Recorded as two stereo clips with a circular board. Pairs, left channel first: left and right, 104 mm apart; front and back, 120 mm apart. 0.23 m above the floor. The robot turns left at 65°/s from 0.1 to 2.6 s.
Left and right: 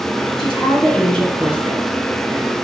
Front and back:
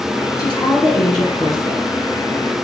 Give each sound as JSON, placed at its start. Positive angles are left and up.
{"t": 0.4, "sound": "a woman speaking", "azimuth_deg": 60, "distance_m": 4.0}